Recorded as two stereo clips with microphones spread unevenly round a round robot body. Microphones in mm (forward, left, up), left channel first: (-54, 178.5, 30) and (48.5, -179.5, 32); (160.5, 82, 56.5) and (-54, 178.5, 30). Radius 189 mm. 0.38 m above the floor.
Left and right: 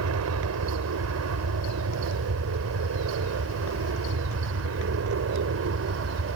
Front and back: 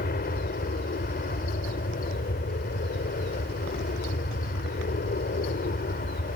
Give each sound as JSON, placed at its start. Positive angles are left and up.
{"t": 0.0, "sound": "an aircraft", "azimuth_deg": -60}